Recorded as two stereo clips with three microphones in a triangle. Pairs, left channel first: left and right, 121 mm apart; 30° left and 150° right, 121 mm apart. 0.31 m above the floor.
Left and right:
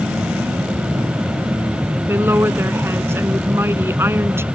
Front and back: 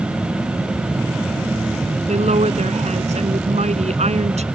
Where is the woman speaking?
160° right.